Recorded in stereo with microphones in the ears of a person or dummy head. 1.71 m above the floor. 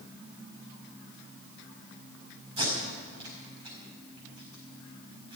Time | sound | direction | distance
2.6 | tape being pulled | 40° right (ahead or behind) | 5 m